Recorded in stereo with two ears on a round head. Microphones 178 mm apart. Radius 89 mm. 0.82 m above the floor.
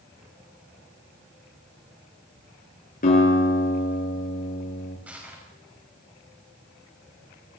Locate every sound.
3.0 s a guitar: 45° left (ahead or behind), 10 m
5.1 s crushing: 10° right (ahead or behind), 5.5 m